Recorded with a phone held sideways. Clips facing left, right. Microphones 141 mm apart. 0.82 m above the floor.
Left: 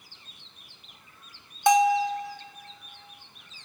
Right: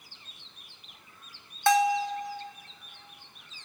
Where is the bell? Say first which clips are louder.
Left 3 dB; 15° left (ahead or behind), 0.8 m.